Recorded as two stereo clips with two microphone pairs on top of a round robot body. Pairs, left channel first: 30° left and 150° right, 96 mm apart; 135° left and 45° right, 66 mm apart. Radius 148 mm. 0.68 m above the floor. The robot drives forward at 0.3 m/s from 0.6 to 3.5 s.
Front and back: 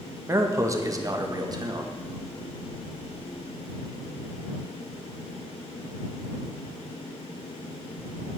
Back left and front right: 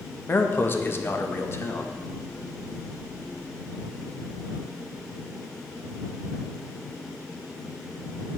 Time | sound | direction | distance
0.3 | a man speaking | 175° left | 0.9 m